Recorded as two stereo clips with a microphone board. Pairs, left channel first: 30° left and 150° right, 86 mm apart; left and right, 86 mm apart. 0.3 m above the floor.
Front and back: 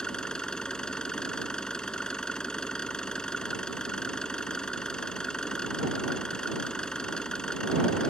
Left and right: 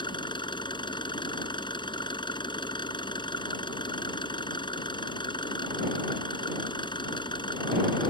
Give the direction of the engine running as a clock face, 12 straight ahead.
8 o'clock.